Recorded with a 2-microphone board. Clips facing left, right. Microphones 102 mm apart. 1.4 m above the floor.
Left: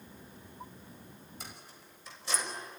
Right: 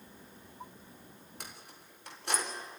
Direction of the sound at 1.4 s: 70° right (ahead or behind).